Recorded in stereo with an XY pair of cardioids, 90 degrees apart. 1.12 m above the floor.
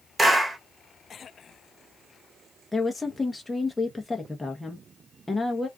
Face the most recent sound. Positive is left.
turn(degrees=15)